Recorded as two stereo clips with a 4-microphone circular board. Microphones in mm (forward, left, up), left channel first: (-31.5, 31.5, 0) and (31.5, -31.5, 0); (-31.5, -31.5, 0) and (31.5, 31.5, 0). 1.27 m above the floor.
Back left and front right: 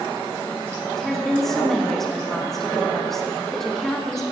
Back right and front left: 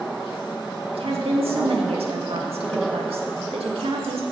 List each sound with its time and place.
0.9 s a woman speaking: 50° left, 2 m